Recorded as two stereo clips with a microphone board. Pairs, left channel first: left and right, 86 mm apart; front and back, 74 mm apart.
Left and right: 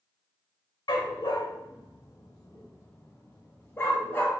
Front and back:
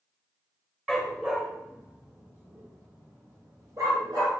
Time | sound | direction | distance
0.9 | a dog barking | 95° left | 1.7 m